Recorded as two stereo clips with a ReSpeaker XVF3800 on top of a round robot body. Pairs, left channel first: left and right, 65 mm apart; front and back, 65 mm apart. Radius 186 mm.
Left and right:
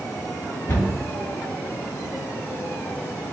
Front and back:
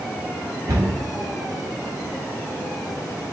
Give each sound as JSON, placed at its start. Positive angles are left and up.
{"t": 0.7, "sound": "a cupboard door", "azimuth_deg": 150, "distance_m": 1.4}